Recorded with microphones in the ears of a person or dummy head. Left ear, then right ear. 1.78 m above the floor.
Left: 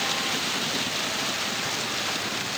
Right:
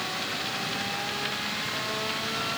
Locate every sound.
Only background noise.